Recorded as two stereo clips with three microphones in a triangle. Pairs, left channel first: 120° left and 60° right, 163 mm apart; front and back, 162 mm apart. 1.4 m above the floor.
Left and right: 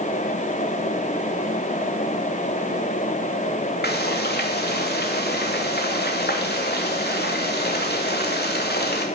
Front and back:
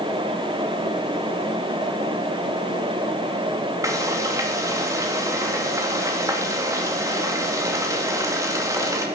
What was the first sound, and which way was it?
Frying, 110° left.